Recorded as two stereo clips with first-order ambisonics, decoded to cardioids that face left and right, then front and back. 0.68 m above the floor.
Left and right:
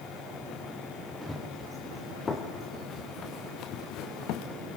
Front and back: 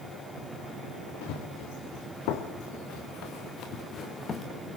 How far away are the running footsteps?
About 4.5 m.